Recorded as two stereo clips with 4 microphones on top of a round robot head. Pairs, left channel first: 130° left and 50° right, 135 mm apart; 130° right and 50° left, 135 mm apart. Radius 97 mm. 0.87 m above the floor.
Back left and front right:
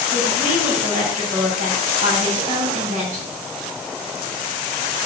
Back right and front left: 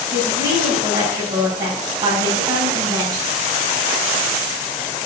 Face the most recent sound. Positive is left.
turn(degrees=-15)